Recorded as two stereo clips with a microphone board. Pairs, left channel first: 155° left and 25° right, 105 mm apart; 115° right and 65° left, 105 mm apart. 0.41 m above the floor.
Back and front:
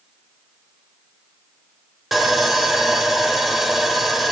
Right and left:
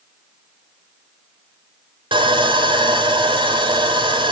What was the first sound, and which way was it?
Sawing, 65° left.